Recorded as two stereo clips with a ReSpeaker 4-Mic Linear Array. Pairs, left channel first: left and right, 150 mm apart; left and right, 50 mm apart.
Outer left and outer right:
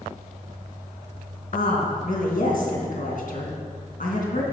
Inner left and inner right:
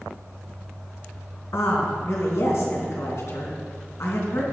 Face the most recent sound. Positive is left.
turn(degrees=65)  # may be behind; listen again after turning